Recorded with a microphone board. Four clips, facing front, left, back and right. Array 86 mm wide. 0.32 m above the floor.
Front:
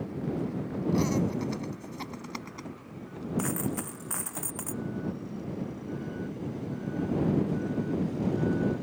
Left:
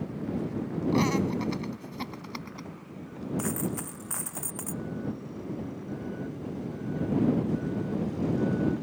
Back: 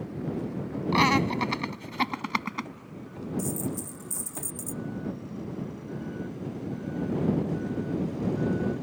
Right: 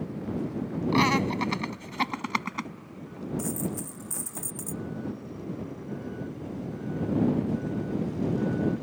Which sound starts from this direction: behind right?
Laughter, at 0.9 s.